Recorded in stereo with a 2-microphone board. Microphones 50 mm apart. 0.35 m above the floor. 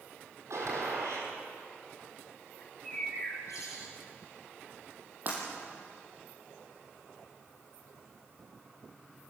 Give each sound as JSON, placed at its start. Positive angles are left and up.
{"t": 0.5, "sound": "a gunshot", "side_deg": -80, "distance_m": 6.0}
{"t": 2.6, "sound": "a bird", "side_deg": 90, "distance_m": 5.5}
{"t": 5.3, "sound": "breaking glass", "side_deg": -35, "distance_m": 5.5}